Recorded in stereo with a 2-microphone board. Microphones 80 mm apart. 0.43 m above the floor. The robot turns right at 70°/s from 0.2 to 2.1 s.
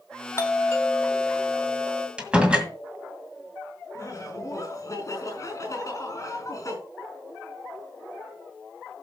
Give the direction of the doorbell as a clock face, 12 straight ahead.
9 o'clock.